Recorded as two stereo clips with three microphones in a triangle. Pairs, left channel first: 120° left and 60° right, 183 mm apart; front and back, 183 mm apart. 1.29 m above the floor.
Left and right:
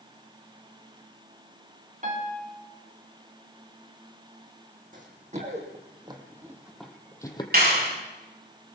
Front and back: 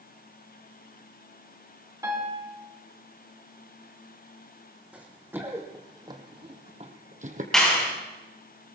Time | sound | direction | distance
2.0 | a piano | 105° right | 2.5 m
4.9 | running footsteps | 100° right | 3 m
7.5 | a clap | 85° right | 6.5 m